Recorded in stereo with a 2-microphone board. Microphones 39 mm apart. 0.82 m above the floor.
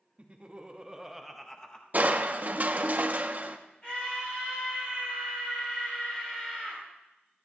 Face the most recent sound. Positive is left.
turn(degrees=30)  # may be behind; listen again after turning